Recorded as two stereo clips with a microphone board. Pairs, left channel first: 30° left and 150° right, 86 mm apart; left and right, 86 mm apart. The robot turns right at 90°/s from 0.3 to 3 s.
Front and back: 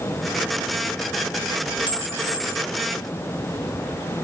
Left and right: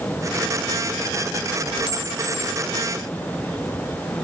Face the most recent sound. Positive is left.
turn(degrees=165)